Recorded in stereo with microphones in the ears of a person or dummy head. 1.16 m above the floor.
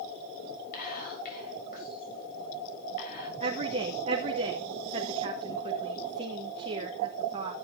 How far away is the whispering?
About 8 m.